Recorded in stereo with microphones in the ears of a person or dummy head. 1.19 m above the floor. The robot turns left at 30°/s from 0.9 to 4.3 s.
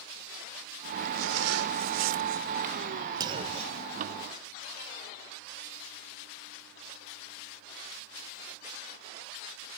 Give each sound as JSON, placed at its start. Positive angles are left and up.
{"t": 1.1, "sound": "a zipper", "azimuth_deg": -80}
{"t": 3.2, "sound": "a clunk", "side_deg": -25}